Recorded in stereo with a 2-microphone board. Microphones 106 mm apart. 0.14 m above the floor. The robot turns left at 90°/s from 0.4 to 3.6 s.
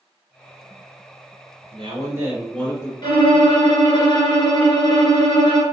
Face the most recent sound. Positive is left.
turn(degrees=70)